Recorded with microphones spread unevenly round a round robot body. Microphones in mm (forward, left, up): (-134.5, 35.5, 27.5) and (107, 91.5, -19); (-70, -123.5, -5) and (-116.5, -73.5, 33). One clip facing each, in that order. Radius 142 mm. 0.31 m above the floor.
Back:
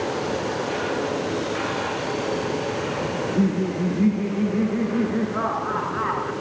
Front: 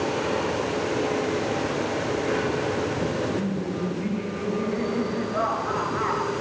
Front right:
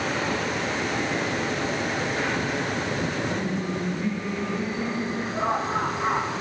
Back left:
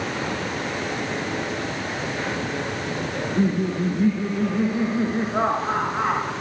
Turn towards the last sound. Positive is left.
turn(degrees=145)